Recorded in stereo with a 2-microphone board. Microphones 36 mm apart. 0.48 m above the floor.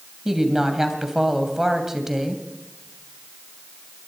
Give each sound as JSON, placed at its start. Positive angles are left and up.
{"t": 0.2, "sound": "a woman speaking", "side_deg": -10, "distance_m": 2.5}